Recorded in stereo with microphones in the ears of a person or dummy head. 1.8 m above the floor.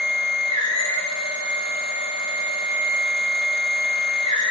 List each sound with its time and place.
0.0 s a machine running: 40° left (ahead or behind), 4 m